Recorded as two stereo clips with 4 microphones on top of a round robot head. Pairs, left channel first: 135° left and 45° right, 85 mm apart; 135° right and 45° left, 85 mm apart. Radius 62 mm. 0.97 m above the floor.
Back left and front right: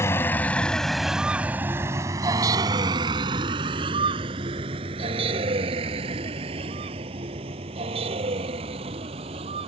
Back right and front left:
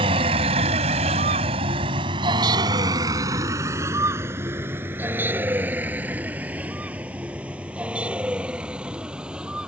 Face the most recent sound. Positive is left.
turn(degrees=-35)